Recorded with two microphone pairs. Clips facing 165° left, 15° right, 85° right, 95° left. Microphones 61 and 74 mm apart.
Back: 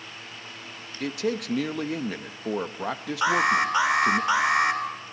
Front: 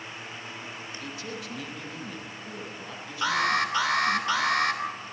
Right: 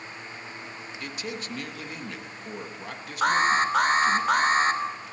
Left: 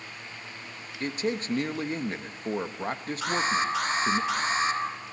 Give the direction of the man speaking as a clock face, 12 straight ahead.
7 o'clock.